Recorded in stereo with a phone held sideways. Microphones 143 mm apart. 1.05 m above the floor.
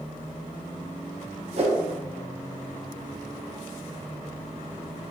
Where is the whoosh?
45° right (ahead or behind), 0.6 m.